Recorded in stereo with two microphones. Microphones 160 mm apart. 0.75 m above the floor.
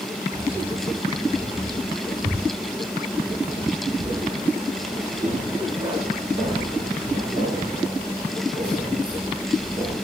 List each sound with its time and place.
0.3 s keys jangling: 20° right (ahead or behind), 2.5 m; by 10.0 s 30° right (ahead or behind), 8.5 m